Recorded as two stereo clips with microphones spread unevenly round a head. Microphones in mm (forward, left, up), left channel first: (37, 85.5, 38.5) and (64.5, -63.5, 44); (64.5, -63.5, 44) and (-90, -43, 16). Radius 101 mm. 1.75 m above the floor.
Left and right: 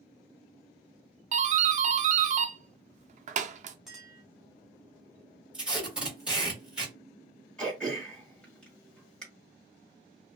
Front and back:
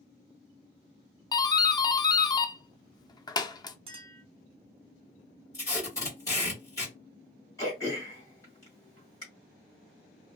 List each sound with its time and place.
1.3 s a doorbell: 75° right, 0.5 m
3.9 s a clink: 160° right, 0.7 m
5.5 s tape being pulled: 5° right, 1.5 m
7.6 s throat clearing: 20° left, 1.7 m